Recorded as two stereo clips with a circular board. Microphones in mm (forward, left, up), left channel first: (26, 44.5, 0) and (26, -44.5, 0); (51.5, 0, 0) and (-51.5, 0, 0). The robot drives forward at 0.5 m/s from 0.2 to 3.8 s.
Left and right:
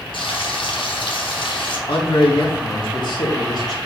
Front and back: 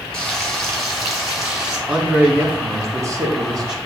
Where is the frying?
85° left, 3 m; by 1.8 s 100° left, 3 m.